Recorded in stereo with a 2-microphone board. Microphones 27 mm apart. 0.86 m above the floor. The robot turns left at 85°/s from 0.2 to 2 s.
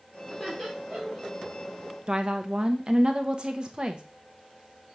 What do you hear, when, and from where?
0.3 s laughter: 10° left (ahead or behind), 3 m; by 1.3 s 65° right (ahead or behind), 3 m
2.1 s a woman speaking: 35° right (ahead or behind), 0.7 m